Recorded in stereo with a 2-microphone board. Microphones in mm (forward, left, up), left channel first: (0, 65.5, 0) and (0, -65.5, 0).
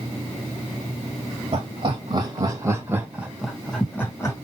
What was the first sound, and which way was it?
Laughter, 45° right (ahead or behind).